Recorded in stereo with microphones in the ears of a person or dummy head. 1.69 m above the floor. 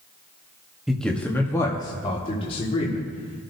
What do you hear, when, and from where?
0.9 s a man speaking: 5° right (ahead or behind), 1.1 m; by 3.5 s 40° left (ahead or behind), 2.5 m